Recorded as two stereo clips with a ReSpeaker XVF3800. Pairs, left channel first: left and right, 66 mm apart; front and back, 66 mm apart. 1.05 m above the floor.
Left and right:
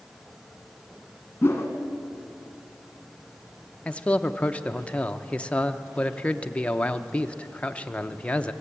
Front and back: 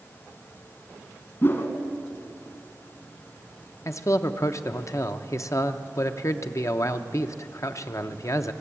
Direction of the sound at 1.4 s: 35° left.